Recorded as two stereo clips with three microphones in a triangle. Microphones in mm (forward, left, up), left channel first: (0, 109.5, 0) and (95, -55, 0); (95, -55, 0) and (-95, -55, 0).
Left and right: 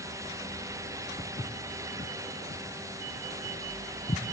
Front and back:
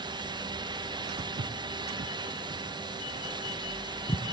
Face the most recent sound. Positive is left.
turn(degrees=65)